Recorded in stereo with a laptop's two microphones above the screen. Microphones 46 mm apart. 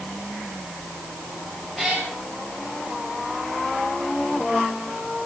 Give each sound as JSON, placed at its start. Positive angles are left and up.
{"t": 1.8, "sound": "a cat meowing", "side_deg": 0, "distance_m": 3.5}